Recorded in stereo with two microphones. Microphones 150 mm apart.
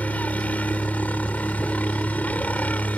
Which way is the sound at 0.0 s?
10° left (ahead or behind).